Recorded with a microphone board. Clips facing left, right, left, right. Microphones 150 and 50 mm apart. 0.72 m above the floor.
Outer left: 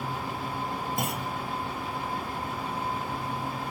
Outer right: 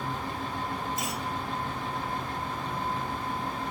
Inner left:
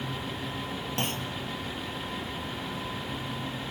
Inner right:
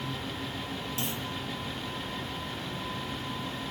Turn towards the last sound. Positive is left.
turn(degrees=55)  # may be behind; listen again after turning